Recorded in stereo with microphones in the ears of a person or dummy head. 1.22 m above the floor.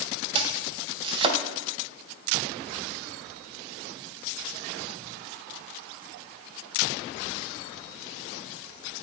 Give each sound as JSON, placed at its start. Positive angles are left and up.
{"t": 0.3, "sound": "chopping", "side_deg": -30, "distance_m": 2.5}